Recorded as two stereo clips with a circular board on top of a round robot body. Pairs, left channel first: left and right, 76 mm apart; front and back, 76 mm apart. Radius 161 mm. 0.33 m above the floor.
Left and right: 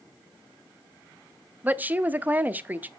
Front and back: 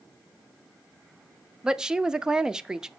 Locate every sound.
1.6 s a woman speaking: 110° right, 0.8 m